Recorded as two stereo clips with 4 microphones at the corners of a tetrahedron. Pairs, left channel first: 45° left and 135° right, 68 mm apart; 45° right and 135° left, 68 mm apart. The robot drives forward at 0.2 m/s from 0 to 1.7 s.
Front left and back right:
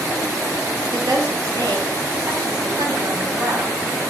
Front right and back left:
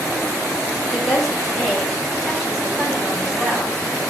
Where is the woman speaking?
130° right, 1.3 m; by 3.8 s 135° right, 1.4 m.